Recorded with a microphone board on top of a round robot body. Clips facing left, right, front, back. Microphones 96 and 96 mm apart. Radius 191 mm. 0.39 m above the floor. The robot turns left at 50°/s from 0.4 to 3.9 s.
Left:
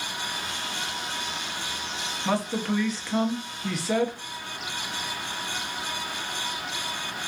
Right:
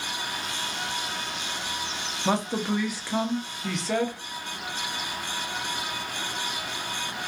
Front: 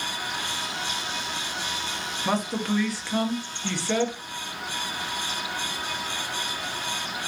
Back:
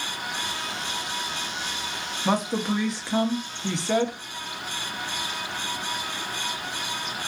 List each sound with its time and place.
2.2 s a man speaking: 115° right, 0.8 m; by 4.2 s 160° left, 0.8 m